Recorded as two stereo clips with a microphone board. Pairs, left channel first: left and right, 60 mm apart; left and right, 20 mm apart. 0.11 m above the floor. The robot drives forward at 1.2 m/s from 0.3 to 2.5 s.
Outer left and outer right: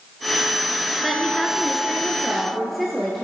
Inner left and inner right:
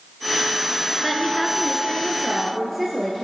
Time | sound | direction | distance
1.0 | a woman speaking | centre (ahead or behind) | 1.2 m